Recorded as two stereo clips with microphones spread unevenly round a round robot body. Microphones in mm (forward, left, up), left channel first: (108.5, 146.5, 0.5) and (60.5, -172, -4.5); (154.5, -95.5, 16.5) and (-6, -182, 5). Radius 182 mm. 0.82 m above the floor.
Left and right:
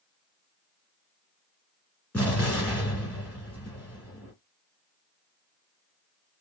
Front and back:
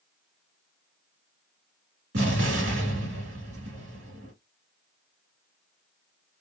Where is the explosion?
165° left, 1.6 m.